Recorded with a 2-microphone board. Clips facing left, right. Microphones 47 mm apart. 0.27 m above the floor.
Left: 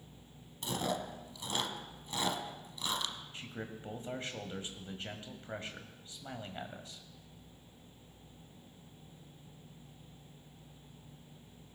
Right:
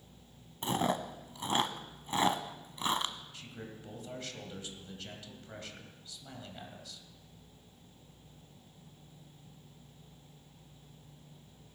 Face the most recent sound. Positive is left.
turn(degrees=30)  # may be behind; listen again after turning